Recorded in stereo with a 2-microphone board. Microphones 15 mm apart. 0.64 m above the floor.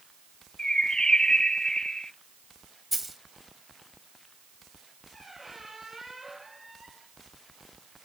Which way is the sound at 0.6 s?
60° left (ahead or behind).